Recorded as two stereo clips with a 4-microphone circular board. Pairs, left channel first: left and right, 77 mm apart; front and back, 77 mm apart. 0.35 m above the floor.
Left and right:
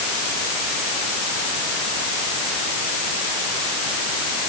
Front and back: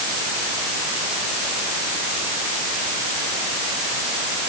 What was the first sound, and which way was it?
Only background noise.